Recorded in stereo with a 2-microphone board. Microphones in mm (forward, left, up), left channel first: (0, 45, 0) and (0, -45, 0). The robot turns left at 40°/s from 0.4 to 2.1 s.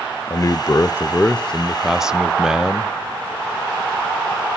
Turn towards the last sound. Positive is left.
turn(degrees=-10)